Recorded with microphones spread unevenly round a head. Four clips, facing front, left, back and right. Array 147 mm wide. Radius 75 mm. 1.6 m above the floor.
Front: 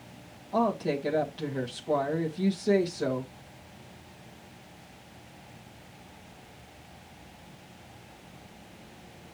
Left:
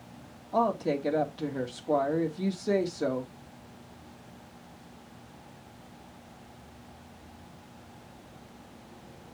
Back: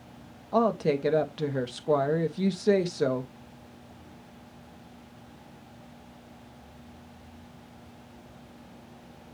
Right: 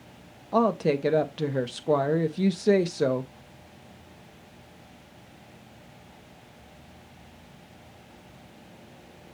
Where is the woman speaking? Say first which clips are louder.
Right 4 dB, back 3 dB; 115° right, 1.5 m.